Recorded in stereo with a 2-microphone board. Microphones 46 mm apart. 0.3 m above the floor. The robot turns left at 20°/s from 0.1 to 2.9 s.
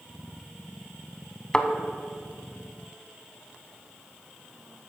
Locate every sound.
1.5 s a thud: 15° left (ahead or behind), 0.5 m